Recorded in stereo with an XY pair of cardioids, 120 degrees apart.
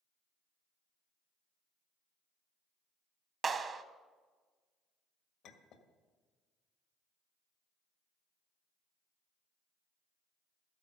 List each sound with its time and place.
3.4 s a clap: 35° right, 1.0 m
5.4 s a clink: 65° left, 1.7 m